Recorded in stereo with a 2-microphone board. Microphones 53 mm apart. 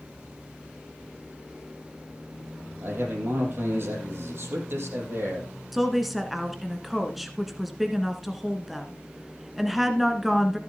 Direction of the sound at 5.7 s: 5° right (ahead or behind).